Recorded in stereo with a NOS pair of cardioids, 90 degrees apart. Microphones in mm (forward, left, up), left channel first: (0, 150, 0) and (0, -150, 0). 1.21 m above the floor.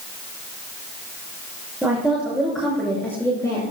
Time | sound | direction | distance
1.8 | a woman speaking | 5° right | 6 m